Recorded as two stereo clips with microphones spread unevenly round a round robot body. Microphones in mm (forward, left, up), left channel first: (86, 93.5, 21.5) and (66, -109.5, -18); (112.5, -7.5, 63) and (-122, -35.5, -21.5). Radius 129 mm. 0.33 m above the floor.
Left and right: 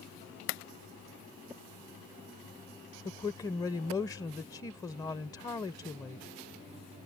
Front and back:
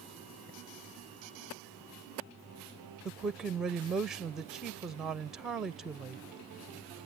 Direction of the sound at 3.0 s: 165° left.